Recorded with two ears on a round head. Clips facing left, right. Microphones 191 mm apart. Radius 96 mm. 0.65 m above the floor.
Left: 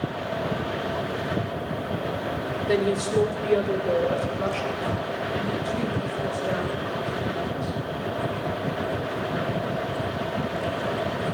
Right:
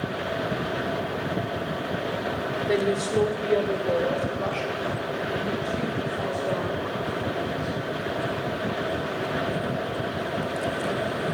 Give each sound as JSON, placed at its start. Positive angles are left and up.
{"t": 2.7, "sound": "a woman speaking", "side_deg": 5, "distance_m": 2.0}